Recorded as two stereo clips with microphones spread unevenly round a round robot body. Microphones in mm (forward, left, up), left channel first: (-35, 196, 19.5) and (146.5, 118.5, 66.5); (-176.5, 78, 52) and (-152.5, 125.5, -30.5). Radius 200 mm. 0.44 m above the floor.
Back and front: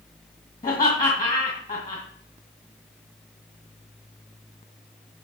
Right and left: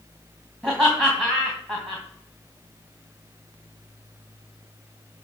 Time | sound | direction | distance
0.6 | laughter | 115° left | 3 m